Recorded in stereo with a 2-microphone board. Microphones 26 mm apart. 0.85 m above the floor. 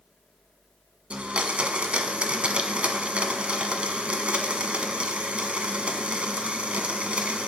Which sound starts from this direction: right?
A blender, at 1.1 s.